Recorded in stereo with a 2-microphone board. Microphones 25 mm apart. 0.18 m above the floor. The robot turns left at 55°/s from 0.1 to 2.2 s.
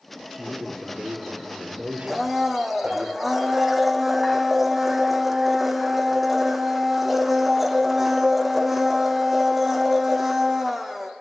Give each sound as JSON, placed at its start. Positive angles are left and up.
{"t": 0.3, "sound": "a man speaking", "azimuth_deg": -15, "distance_m": 4.0}
{"t": 2.1, "sound": "a blender", "side_deg": -10, "distance_m": 2.0}